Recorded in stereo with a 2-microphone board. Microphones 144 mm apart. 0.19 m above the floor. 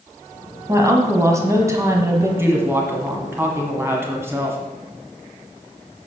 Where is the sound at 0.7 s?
20° right (ahead or behind), 1.4 m.